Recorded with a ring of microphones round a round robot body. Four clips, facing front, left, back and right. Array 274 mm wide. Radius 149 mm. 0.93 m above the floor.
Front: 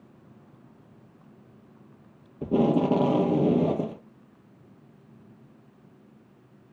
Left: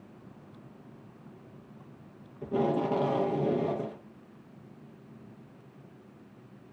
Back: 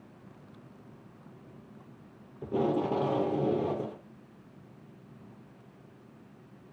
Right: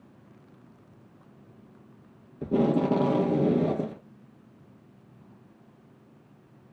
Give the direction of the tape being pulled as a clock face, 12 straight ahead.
1 o'clock.